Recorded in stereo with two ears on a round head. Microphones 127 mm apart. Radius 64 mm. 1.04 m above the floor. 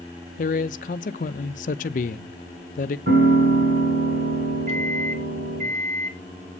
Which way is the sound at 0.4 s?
55° left (ahead or behind).